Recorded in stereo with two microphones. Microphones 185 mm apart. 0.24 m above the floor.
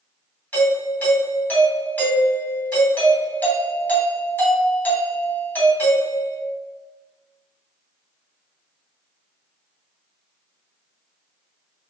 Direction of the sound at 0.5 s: 10° left (ahead or behind).